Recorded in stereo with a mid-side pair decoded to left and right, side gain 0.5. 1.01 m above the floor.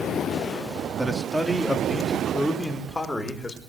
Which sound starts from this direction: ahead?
A man speaking, at 1.0 s.